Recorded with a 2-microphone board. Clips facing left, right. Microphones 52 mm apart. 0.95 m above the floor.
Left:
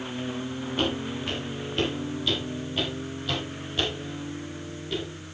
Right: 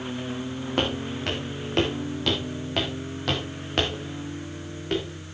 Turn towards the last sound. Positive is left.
turn(degrees=-60)  # may be behind; listen again after turning